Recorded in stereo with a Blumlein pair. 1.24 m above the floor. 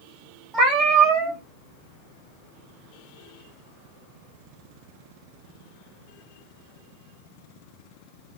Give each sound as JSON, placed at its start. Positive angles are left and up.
{"t": 0.5, "sound": "a cat meowing", "azimuth_deg": -20, "distance_m": 1.3}